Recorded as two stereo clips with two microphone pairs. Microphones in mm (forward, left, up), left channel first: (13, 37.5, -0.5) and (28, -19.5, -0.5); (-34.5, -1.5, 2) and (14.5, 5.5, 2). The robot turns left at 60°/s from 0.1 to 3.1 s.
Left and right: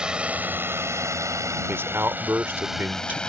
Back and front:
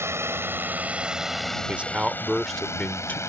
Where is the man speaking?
40° right; by 3.2 s 125° right.